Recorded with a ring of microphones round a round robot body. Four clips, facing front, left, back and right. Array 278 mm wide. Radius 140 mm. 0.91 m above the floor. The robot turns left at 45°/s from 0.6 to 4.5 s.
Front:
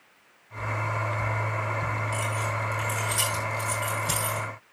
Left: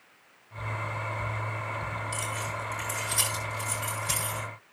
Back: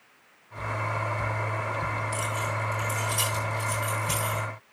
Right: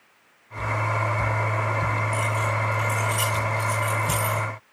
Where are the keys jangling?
95° left, 8.5 m; by 4.4 s 10° right, 8.5 m.